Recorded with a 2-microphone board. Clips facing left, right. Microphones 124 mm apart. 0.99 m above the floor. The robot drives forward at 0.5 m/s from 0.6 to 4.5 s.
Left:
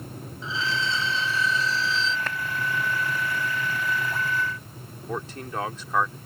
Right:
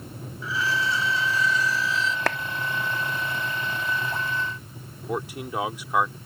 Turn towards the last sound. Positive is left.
turn(degrees=-10)  # may be behind; listen again after turning